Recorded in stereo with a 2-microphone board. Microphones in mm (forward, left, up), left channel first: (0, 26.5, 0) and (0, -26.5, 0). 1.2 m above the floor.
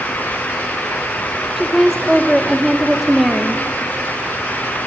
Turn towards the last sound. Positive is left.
turn(degrees=0)  # may be behind; listen again after turning